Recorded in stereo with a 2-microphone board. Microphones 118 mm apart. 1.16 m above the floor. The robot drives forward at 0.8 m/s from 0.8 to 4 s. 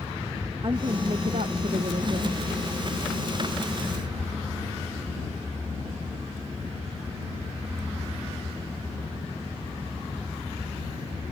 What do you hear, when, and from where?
0.6 s a woman speaking: 45° right (ahead or behind); by 2.4 s 50° right (ahead or behind)